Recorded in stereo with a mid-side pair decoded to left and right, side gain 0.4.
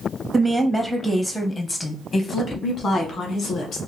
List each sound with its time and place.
0.3 s a woman speaking: 15° right, 0.8 m; by 3.8 s 70° left, 1.7 m